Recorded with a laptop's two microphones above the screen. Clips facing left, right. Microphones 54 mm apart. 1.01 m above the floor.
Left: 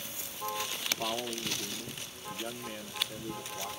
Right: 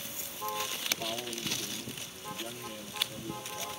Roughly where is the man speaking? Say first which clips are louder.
Left 2 dB; left.